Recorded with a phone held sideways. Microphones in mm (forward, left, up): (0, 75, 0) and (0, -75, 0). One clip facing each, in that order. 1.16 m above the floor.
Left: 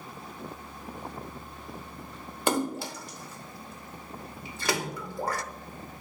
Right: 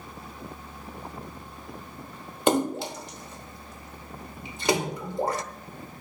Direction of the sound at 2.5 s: 20° right (ahead or behind).